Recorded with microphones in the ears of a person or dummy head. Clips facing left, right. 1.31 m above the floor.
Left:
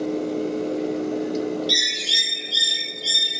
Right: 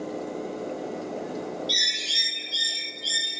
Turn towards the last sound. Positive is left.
turn(degrees=20)  # may be behind; listen again after turning